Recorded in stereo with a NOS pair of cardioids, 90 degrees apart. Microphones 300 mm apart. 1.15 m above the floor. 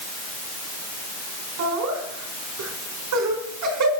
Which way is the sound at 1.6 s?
70° right.